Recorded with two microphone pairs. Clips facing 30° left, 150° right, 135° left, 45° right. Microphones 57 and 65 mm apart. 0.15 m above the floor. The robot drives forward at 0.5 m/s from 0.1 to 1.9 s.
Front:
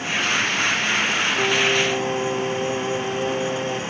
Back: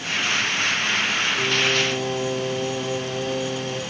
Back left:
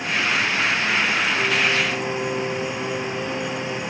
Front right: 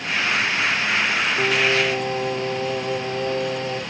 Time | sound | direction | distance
1.4 | singing | 75° right | 1.7 m